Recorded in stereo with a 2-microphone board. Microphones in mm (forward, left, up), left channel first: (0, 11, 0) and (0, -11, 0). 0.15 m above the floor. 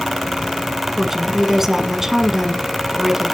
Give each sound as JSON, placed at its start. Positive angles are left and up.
{"t": 1.0, "sound": "a woman speaking", "side_deg": -15, "distance_m": 1.2}